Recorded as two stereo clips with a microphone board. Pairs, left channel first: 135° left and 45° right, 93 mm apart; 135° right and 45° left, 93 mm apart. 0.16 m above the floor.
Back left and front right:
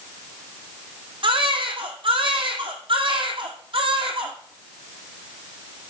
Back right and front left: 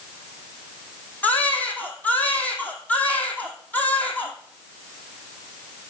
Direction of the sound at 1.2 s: 60° right.